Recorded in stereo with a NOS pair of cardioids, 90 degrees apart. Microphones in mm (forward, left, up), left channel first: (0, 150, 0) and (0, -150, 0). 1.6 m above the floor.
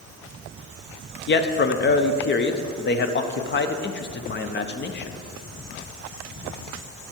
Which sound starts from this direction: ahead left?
A man speaking, at 1.3 s.